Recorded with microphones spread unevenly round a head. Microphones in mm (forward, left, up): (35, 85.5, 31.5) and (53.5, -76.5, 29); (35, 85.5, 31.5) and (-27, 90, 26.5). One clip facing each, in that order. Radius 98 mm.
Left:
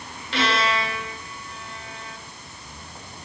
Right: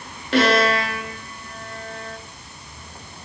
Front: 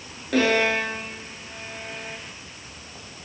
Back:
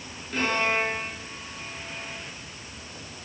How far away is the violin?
About 3 m.